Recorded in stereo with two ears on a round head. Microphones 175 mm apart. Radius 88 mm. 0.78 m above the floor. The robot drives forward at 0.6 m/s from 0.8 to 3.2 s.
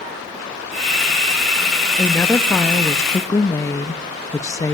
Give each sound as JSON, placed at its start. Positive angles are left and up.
{"t": 2.0, "sound": "a woman speaking", "side_deg": 10, "distance_m": 1.2}